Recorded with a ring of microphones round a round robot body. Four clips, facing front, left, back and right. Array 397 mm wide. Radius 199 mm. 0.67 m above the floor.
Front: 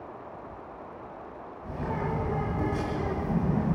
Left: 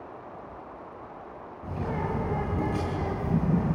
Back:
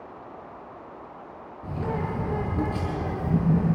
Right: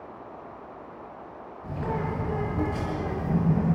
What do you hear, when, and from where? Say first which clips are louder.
1.6 s a bird: right 1 dB, back 2 dB; 155° left, 8 m